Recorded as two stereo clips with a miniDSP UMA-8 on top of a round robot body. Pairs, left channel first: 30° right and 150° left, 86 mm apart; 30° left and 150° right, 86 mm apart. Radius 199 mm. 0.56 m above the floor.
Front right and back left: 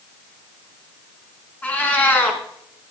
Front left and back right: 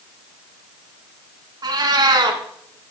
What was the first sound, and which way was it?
A cat meowing, 105° right.